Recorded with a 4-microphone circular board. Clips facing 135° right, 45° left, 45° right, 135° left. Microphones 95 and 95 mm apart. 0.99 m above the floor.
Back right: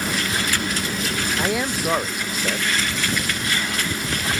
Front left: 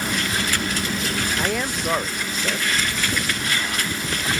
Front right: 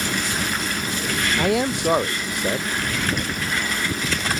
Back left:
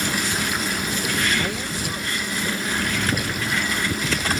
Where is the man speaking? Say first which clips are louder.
Back right 1 dB, front right 6 dB; 50° right.